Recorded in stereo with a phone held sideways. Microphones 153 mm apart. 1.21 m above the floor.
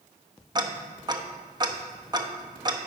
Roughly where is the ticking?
Right.